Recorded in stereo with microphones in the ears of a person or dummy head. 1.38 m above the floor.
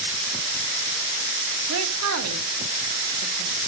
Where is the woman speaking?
80° right, 2.5 m.